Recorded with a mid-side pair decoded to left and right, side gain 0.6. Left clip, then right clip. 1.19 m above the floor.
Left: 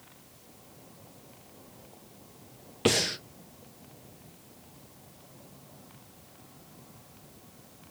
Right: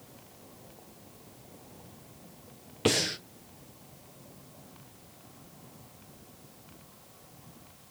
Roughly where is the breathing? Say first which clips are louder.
Left 1 dB; ahead.